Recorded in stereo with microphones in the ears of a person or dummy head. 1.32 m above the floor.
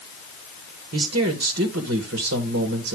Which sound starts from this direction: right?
A man speaking, at 0.9 s.